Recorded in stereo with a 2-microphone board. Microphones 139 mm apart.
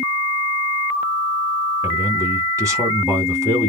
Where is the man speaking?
25° right (ahead or behind), 1.1 m.